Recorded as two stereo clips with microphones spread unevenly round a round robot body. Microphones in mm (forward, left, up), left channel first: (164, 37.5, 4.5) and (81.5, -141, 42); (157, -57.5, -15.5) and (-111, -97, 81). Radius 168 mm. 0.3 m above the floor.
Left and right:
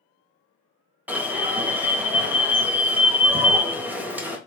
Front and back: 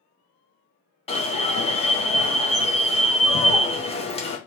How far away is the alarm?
About 1.0 m.